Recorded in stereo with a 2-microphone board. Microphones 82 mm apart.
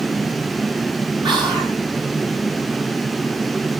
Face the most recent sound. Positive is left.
turn(degrees=-70)  # may be behind; listen again after turning